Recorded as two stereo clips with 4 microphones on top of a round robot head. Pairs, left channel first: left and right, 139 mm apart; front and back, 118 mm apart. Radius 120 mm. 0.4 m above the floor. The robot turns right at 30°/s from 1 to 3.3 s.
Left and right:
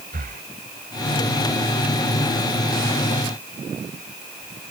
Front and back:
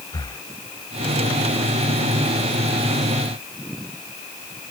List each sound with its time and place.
0.1 s breathing: 70° right